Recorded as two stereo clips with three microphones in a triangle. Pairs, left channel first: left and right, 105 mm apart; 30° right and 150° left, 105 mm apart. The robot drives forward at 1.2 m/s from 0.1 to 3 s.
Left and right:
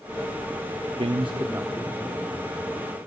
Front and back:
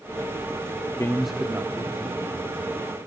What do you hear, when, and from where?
1.0 s a man speaking: 80° right, 0.5 m; by 3.1 s 170° right, 2.5 m